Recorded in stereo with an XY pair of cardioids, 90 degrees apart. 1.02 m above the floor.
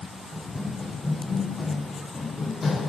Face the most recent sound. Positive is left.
turn(degrees=45)